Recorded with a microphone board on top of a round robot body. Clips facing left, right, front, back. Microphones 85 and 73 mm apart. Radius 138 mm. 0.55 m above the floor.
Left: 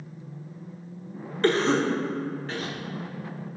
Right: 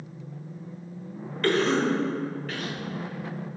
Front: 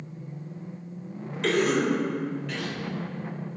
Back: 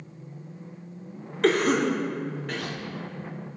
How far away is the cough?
About 1.5 m.